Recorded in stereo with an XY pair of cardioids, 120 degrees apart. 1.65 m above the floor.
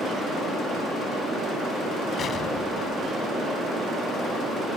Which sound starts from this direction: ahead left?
An explosion, at 2.2 s.